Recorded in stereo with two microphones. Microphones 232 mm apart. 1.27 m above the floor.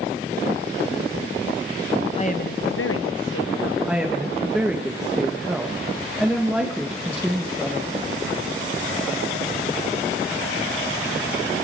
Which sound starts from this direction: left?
A woman speaking, at 2.1 s.